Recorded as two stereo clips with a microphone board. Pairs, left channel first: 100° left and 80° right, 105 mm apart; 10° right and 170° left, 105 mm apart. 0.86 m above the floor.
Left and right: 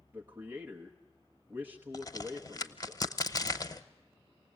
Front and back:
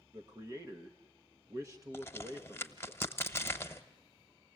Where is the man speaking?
140° right, 1.0 m.